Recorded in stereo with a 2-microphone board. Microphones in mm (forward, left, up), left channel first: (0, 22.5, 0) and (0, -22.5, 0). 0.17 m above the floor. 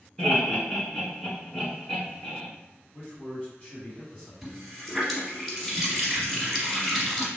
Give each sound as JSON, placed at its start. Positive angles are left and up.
{"t": 0.2, "sound": "laughter", "side_deg": 15, "distance_m": 1.9}
{"t": 2.9, "sound": "a man speaking", "side_deg": 20, "distance_m": 1.3}
{"t": 4.4, "sound": "a running tap", "side_deg": 0, "distance_m": 1.1}